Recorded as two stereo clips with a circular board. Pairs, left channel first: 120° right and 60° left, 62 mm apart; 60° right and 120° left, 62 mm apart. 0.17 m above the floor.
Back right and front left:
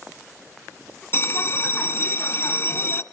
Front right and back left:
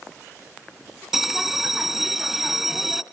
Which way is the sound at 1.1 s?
155° right.